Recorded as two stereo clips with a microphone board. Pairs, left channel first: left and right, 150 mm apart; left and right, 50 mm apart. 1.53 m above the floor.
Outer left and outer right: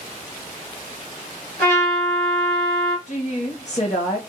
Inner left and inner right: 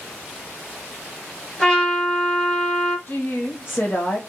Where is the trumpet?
15° left (ahead or behind), 1.8 m.